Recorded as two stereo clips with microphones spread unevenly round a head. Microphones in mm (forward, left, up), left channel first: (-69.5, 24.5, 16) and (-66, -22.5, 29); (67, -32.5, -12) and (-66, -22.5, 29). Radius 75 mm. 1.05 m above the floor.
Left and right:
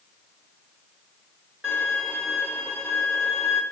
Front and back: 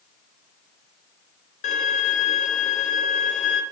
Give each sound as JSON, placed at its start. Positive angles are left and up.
{"t": 1.6, "sound": "a violin", "azimuth_deg": -30, "distance_m": 0.9}